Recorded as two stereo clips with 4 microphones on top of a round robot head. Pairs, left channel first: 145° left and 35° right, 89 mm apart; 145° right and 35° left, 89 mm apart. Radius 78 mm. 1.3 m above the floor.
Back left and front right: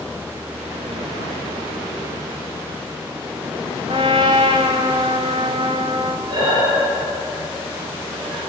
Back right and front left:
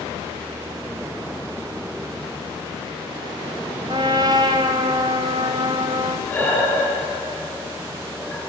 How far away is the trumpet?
About 1.3 m.